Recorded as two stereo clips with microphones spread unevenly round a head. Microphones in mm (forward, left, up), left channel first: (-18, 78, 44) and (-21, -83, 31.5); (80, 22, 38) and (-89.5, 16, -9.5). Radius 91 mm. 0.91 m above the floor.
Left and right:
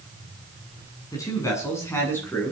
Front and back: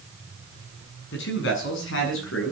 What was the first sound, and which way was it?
A man speaking, 15° left.